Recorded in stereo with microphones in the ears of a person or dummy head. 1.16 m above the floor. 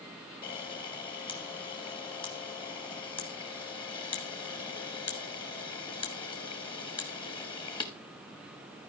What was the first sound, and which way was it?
A camera shutter, 25° left (ahead or behind).